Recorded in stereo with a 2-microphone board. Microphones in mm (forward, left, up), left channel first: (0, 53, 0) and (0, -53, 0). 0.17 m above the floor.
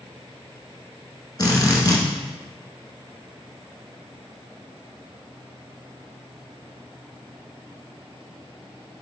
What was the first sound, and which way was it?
A drill, 40° left (ahead or behind).